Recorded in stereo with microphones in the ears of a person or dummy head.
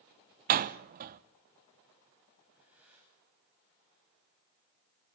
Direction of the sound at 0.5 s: 45° right (ahead or behind).